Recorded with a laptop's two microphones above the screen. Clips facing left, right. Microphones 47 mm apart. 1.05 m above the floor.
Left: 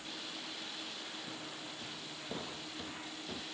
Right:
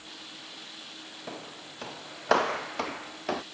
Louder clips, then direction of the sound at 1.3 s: Right 4 dB; 80° right.